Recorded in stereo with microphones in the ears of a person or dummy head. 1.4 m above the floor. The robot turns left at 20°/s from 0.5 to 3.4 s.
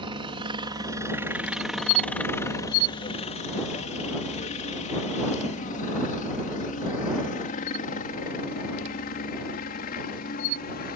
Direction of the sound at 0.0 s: 25° right (ahead or behind).